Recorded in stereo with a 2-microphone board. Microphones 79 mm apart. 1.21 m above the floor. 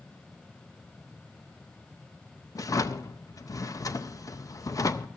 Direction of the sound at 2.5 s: 45° left (ahead or behind).